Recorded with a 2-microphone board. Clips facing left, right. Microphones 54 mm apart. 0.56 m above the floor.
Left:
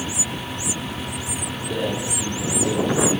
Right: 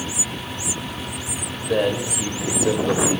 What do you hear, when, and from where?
1.6 s a man speaking: 65° right (ahead or behind), 2.5 m